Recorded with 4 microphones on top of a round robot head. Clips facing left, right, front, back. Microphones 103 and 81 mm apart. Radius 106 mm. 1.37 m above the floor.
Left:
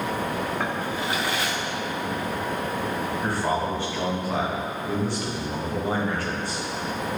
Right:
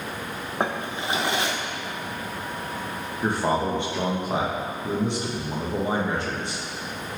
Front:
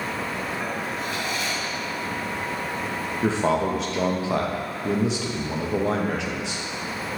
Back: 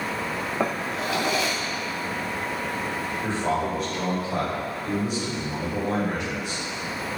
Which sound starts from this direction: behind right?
A drawer, at 0.6 s.